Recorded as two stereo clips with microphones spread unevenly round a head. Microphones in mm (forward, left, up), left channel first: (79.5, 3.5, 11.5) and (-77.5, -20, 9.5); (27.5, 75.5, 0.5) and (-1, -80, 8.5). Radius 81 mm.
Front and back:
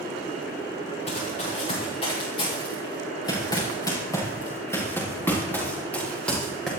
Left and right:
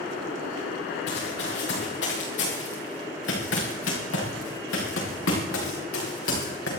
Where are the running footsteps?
60° left, 7.5 m; by 6.7 s 95° left, 8 m.